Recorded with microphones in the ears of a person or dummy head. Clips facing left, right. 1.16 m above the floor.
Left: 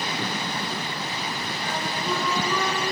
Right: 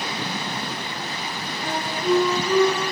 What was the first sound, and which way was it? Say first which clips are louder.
A flute: right 7 dB; 20° right (ahead or behind).